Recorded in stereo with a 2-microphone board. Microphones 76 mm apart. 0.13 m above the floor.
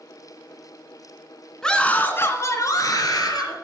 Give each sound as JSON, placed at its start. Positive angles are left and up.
{"t": 1.6, "sound": "a scream", "side_deg": 10, "distance_m": 1.6}